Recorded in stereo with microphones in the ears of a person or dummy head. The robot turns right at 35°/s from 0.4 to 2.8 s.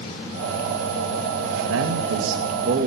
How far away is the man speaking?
About 2.5 m.